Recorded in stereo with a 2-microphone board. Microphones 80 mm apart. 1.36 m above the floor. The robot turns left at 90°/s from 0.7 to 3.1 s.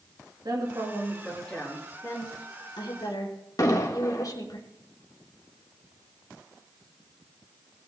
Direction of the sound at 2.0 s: 30° left (ahead or behind).